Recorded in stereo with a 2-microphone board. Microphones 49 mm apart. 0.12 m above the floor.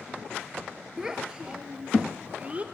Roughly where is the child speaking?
Centre.